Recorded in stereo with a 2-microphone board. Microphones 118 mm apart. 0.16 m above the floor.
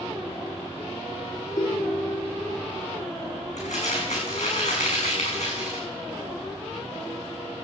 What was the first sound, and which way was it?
A ringtone, 35° left (ahead or behind).